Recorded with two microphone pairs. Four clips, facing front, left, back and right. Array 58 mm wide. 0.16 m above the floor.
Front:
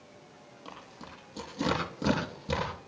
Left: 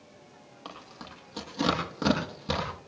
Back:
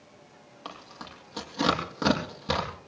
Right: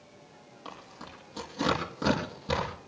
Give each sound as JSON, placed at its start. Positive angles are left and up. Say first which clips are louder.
{"t": 0.7, "sound": "tearing paper", "louder": "even, back 4 dB", "azimuth_deg": 165, "distance_m": 7.0}